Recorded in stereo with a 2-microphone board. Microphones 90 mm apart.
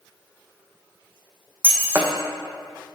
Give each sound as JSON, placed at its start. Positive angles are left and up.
{"t": 1.6, "sound": "breaking glass", "side_deg": -20, "distance_m": 1.1}